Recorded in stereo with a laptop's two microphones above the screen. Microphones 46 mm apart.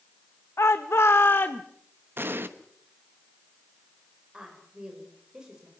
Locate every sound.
0.6 s a shout: 70° left (ahead or behind), 1.0 m; by 1.6 s 40° left (ahead or behind), 0.8 m
2.2 s an explosion: 50° right (ahead or behind), 1.0 m
4.3 s a woman speaking: 15° right (ahead or behind), 4.5 m